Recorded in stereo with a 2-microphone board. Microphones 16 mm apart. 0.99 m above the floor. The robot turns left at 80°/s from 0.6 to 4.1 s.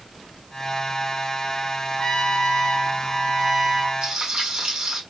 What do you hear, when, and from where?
2.0 s a trumpet: 115° left, 2.5 m; by 3.9 s 40° right, 2.5 m
4.0 s frying: 50° right (ahead or behind), 2.5 m; by 5.0 s 55° right (ahead or behind), 2.5 m